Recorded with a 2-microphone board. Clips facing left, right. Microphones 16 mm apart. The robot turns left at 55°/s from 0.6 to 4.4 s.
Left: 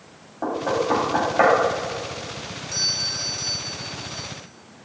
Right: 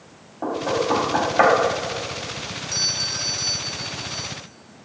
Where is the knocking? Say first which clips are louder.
Even; 20° left (ahead or behind), 2 m; by 1.5 s 30° right (ahead or behind), 2 m.